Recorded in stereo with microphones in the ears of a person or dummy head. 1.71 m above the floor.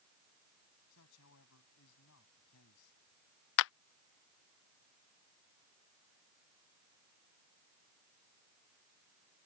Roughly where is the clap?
Left.